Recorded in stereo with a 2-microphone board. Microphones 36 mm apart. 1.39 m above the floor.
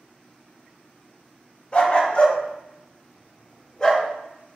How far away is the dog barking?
About 1.2 m.